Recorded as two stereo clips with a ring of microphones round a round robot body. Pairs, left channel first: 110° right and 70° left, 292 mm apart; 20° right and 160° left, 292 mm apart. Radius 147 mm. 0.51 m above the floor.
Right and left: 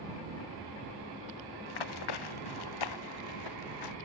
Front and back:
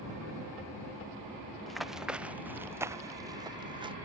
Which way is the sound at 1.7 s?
110° right.